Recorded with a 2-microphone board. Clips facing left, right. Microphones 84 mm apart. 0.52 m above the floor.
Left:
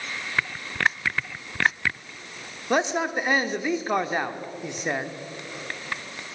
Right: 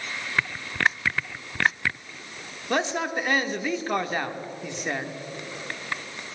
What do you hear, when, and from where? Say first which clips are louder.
2.7 s a man speaking: left 2 dB; 15° left (ahead or behind), 0.9 m